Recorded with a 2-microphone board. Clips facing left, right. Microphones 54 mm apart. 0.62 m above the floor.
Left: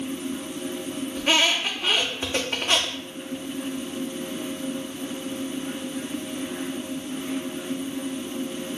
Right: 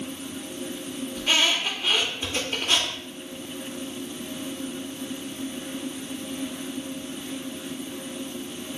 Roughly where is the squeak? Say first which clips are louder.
Left 2 dB; left.